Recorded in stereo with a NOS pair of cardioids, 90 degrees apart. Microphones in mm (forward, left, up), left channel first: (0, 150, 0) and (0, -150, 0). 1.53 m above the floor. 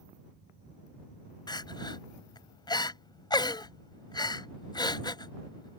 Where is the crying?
15° left.